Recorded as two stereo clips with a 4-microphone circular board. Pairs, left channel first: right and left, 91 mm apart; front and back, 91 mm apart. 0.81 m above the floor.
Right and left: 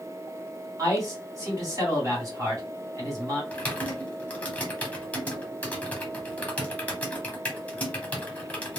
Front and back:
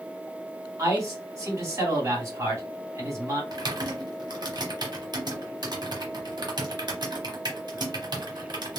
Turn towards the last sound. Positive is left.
turn(degrees=-160)